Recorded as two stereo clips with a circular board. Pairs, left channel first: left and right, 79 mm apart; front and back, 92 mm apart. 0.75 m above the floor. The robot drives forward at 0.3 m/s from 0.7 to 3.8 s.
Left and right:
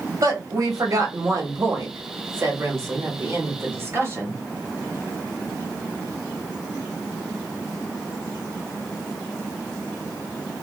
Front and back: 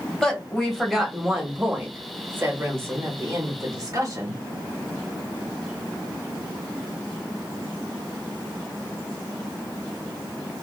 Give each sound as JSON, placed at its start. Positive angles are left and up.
{"t": 0.2, "sound": "a woman speaking", "azimuth_deg": -85, "distance_m": 1.0}